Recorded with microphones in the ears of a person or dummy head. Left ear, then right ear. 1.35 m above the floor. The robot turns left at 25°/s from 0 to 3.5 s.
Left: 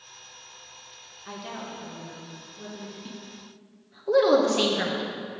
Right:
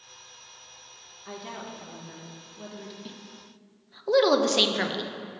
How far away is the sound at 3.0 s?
About 0.8 m.